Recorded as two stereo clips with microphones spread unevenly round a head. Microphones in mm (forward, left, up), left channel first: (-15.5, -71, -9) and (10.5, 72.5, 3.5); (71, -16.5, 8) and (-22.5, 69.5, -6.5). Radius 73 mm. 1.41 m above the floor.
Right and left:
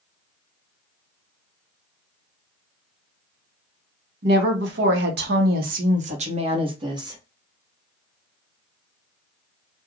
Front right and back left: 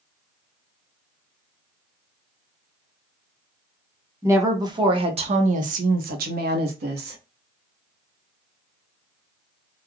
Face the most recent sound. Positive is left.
turn(degrees=145)